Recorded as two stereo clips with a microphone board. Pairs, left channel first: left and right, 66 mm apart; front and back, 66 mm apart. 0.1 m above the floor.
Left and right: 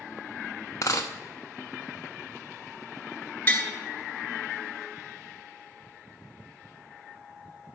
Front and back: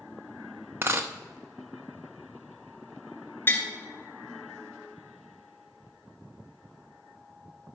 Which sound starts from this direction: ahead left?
Tapping, at 3.5 s.